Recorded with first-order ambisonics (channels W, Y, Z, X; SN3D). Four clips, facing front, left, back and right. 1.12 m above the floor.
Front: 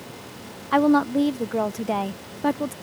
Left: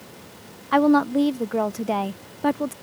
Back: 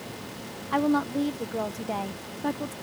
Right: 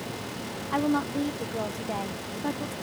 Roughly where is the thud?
No thud in this recording.